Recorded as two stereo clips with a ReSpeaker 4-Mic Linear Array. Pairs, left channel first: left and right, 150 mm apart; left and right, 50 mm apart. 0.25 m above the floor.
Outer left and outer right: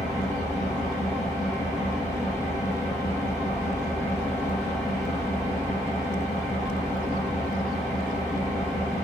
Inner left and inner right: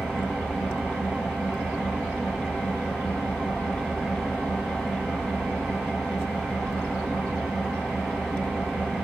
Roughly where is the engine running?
Centre.